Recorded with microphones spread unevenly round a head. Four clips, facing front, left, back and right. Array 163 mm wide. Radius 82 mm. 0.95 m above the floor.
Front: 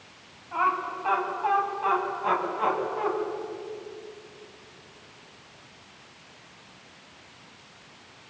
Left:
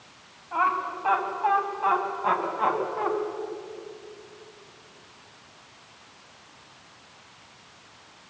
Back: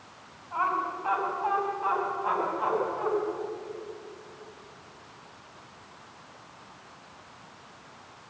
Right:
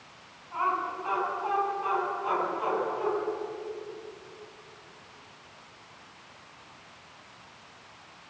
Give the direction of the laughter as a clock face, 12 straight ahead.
10 o'clock.